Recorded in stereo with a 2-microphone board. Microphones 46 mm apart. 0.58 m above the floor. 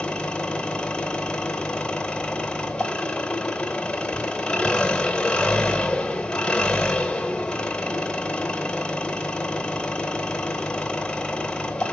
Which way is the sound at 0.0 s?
20° left (ahead or behind).